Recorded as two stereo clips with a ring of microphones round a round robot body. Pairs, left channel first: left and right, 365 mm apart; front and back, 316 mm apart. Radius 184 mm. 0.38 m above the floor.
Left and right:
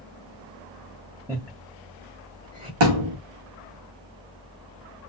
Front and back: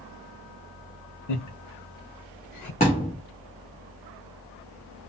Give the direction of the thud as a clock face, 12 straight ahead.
2 o'clock.